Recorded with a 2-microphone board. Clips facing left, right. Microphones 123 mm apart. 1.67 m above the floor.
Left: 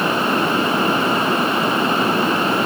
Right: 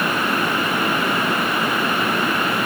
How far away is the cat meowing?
No cat meowing in this recording.